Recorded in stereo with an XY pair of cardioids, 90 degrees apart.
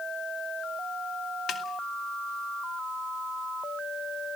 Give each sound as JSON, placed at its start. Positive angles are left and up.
{"t": 1.5, "sound": "a snare drum", "azimuth_deg": 65, "distance_m": 2.5}